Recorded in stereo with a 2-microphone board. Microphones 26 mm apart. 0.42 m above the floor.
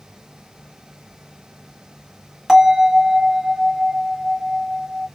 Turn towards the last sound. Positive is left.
turn(degrees=10)  # may be behind; listen again after turning